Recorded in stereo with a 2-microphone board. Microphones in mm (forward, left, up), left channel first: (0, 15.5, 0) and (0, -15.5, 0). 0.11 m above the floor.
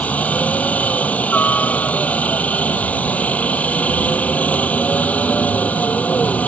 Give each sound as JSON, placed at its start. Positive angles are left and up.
{"t": 0.0, "sound": "a helicopter", "side_deg": 60}